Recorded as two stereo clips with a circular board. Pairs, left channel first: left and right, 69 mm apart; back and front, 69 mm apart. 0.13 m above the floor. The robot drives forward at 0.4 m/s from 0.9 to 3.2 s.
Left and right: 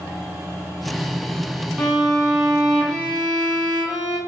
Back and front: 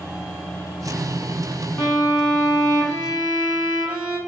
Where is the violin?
160° right, 1.0 m; by 4.2 s 170° right, 1.4 m.